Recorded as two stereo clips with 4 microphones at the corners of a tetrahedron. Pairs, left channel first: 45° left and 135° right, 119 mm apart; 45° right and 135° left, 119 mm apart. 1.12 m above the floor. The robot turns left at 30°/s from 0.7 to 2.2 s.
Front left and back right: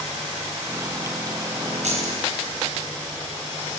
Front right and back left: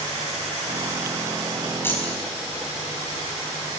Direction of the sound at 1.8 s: 115° right.